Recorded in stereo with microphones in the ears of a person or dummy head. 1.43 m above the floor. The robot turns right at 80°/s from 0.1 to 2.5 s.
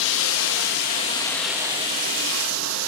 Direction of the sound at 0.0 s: 75° left.